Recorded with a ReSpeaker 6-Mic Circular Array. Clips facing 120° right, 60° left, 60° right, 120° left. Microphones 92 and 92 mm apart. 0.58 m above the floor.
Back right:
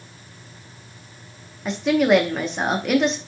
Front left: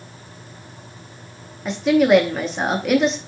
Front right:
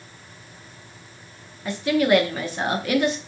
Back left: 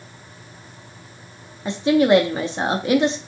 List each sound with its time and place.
1.6 s a woman speaking: 145° left, 0.7 m